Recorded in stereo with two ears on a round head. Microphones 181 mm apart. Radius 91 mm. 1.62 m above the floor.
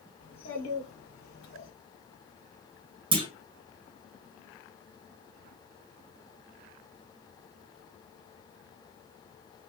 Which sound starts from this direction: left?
A child speaking, at 0.2 s.